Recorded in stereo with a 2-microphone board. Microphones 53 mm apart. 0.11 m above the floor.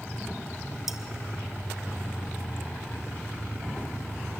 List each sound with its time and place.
0.9 s cutlery clinking: 10° right (ahead or behind), 1.5 m